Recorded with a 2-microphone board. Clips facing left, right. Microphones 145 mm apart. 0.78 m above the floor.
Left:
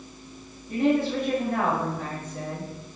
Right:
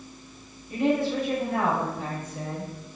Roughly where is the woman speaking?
Left.